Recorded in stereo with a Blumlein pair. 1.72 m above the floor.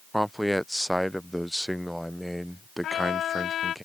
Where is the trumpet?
30° left.